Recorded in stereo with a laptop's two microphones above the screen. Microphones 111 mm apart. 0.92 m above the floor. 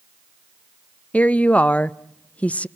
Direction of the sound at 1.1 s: 10° left (ahead or behind).